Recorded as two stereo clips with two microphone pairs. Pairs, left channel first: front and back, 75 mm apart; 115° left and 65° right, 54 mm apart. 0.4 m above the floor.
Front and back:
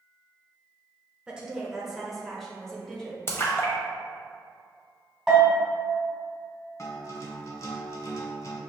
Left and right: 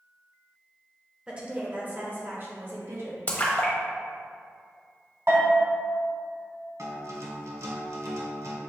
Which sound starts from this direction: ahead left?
A splash, at 3.3 s.